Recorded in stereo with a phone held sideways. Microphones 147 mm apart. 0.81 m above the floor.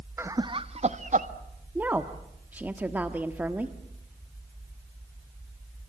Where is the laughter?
15° right (ahead or behind), 1.0 m; by 1.3 s 60° right (ahead or behind), 1.6 m.